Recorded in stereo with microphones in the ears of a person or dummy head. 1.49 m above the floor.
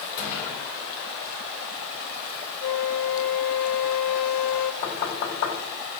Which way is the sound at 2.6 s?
60° left (ahead or behind).